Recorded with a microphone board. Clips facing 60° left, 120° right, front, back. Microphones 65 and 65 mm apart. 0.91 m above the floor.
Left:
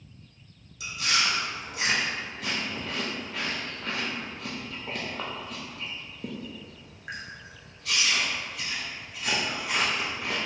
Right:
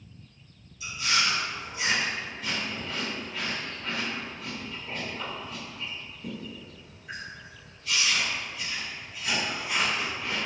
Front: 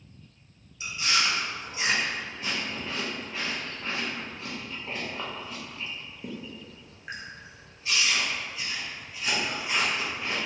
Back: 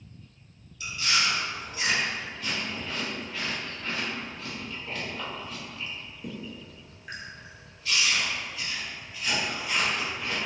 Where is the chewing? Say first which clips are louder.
Even, even; 65° left, 0.6 m.